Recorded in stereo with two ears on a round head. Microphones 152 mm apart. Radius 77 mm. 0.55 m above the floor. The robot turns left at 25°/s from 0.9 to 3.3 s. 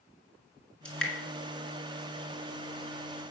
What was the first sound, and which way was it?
Dripping, 5° left (ahead or behind).